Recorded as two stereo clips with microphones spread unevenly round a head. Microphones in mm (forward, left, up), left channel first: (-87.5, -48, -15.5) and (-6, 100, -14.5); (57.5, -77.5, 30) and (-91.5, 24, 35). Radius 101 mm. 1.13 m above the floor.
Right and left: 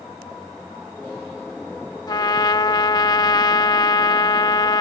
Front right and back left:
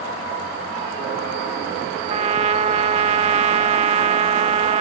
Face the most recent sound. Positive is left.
turn(degrees=-175)